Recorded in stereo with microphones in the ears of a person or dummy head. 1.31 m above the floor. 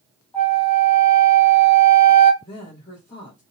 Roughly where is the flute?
Centre.